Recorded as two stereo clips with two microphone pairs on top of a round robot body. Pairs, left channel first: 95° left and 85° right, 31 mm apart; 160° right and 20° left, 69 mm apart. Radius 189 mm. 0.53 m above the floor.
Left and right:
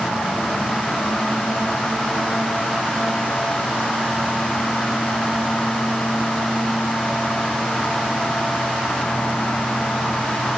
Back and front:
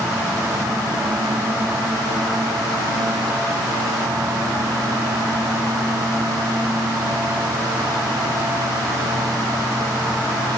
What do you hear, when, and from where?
Only background noise.